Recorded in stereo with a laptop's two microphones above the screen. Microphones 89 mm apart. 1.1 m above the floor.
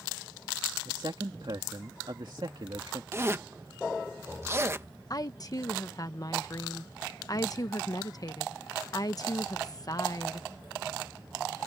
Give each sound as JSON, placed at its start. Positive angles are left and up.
{"t": 0.8, "sound": "a man speaking", "side_deg": -60}
{"t": 3.1, "sound": "a zipper", "side_deg": -30}
{"t": 5.1, "sound": "a woman speaking", "side_deg": 45}